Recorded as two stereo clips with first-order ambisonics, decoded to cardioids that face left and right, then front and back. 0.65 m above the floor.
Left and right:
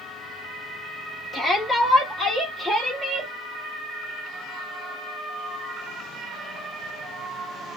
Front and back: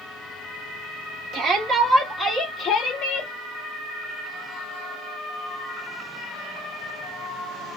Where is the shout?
165° left, 1.0 m; by 3.3 s 15° left, 1.2 m.